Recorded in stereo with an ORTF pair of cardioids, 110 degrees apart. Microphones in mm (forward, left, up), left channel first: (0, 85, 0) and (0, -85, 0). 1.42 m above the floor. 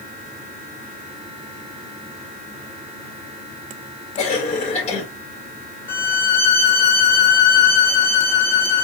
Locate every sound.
4.2 s a cough: 40° left, 2.5 m
5.9 s a violin: 15° left, 2.5 m